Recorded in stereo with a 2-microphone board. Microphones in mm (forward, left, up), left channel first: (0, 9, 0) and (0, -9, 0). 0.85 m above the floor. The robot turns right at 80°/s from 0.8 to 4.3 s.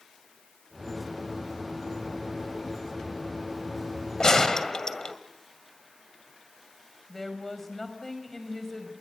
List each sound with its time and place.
4.2 s a gunshot: 45° left (ahead or behind), 1.9 m; by 5.2 s 40° left (ahead or behind), 1.9 m
7.1 s a woman speaking: 15° left (ahead or behind), 4.5 m